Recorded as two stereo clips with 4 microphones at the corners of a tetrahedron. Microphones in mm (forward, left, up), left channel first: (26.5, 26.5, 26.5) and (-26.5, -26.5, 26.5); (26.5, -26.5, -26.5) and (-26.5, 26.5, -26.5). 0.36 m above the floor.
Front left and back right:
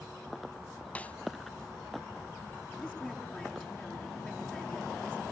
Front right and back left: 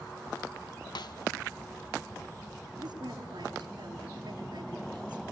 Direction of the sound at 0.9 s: 25° right.